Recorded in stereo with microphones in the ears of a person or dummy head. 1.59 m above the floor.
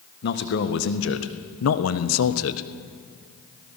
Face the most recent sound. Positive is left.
turn(degrees=75)  # may be behind; listen again after turning